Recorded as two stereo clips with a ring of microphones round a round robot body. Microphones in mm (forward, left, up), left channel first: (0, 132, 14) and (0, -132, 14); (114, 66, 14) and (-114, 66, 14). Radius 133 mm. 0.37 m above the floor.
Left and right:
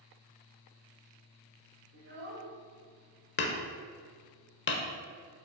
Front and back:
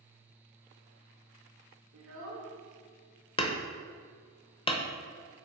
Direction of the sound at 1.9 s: 140° right.